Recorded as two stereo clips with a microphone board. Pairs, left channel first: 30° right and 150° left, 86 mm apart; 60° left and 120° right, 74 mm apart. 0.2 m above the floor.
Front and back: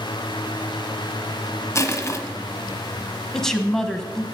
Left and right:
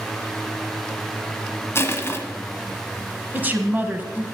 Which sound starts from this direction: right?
A woman speaking, at 3.3 s.